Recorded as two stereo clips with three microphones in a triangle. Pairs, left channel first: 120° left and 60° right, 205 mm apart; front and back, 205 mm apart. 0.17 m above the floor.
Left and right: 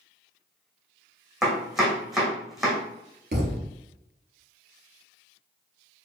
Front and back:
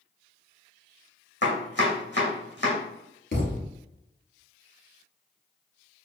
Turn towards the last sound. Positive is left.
turn(degrees=-30)